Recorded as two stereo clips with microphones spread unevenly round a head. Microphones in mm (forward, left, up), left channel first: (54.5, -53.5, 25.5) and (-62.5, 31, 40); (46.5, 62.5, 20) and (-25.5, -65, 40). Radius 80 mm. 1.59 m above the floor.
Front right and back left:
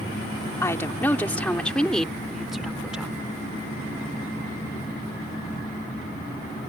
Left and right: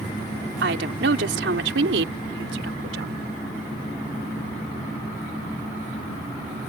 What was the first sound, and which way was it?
A woman speaking, 110° right.